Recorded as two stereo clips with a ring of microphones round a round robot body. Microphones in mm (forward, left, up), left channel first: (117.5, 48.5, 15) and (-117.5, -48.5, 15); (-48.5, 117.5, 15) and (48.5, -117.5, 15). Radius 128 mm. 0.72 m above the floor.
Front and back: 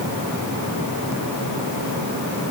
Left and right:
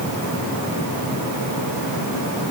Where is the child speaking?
No child speaking in this recording.